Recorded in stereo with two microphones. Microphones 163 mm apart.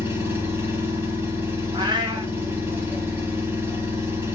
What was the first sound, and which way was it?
An engine running, 15° right (ahead or behind).